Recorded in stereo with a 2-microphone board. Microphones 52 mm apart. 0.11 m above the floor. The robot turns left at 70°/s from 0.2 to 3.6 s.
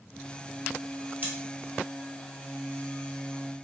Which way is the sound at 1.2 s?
35° right (ahead or behind).